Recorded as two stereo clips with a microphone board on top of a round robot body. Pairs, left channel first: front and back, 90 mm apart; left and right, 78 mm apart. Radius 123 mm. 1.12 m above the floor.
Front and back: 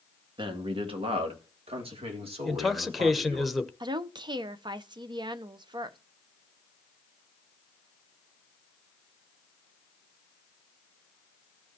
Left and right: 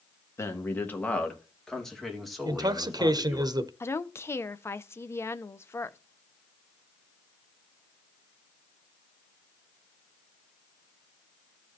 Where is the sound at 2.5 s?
90° right, 1.0 m.